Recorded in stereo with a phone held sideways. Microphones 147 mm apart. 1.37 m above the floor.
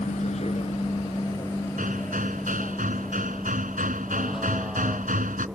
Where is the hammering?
65° right (ahead or behind).